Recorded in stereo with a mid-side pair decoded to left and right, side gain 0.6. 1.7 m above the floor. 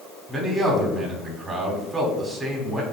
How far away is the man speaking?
About 5 m.